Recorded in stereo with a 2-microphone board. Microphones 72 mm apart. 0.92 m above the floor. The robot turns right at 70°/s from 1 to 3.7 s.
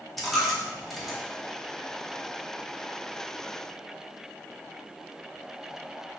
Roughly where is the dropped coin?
Centre.